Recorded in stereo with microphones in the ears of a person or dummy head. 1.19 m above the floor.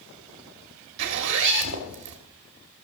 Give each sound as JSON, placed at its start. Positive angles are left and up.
{"t": 1.0, "sound": "a zipper", "side_deg": -60, "distance_m": 1.6}